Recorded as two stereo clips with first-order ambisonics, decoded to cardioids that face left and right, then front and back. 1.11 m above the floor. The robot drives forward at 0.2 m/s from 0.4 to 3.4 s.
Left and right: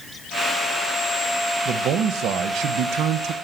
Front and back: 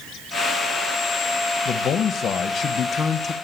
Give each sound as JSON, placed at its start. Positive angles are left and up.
{"t": 1.6, "sound": "a man speaking", "azimuth_deg": -50, "distance_m": 1.2}